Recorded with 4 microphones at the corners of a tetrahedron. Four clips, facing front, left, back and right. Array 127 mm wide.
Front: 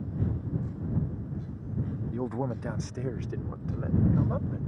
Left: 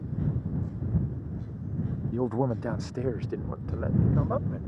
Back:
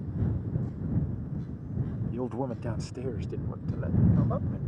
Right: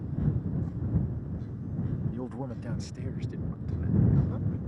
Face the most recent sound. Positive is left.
turn(degrees=95)